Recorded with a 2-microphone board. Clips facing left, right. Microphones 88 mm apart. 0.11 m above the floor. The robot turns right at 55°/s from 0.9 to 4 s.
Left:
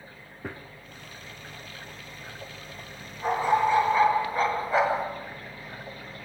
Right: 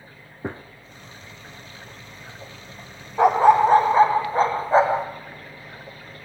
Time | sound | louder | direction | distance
0.4 | a gunshot | right 7 dB | 25° right (ahead or behind) | 0.5 m
3.2 | a dog barking | right 9 dB | 75° right | 3 m